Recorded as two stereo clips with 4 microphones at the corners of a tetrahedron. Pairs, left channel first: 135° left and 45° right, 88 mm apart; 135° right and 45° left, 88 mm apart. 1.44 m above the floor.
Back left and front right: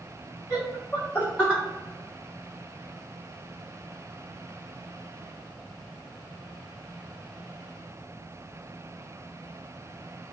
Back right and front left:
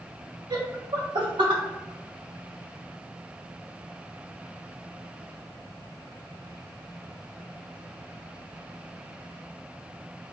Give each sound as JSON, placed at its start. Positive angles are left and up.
{"t": 0.5, "sound": "laughter", "azimuth_deg": 85, "distance_m": 1.3}